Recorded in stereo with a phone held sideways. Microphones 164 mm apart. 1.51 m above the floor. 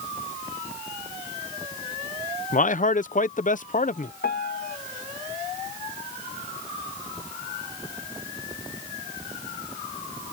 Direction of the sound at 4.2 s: 75° left (ahead or behind).